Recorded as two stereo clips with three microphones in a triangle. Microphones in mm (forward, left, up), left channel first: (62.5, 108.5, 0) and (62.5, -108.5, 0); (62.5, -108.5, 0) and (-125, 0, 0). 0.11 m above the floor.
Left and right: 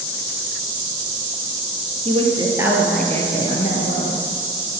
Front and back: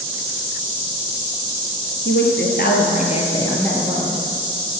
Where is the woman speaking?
35° right, 2.5 m; by 4.2 s 65° left, 2.5 m.